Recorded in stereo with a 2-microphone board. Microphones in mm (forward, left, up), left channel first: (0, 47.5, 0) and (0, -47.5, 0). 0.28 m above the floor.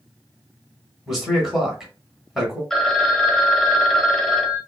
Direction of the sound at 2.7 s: 5° left (ahead or behind).